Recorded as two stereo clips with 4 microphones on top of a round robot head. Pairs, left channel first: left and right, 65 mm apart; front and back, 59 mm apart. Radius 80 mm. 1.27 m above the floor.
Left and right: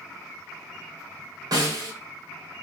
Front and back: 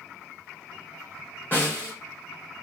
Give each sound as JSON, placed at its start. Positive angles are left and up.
{"t": 1.5, "sound": "a snare drum", "azimuth_deg": -70, "distance_m": 1.9}